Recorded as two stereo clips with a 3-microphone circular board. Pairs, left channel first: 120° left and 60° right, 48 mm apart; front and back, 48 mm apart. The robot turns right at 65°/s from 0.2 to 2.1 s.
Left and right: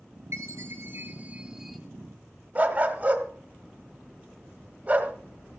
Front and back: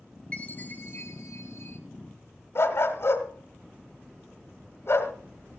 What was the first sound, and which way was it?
A chime, 65° right.